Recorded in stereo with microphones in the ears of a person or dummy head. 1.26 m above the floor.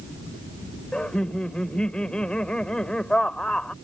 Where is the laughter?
5° left (ahead or behind).